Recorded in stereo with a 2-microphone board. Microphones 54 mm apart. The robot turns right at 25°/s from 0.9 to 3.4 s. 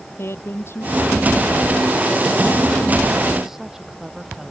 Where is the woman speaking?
125° left; by 4.5 s 170° right.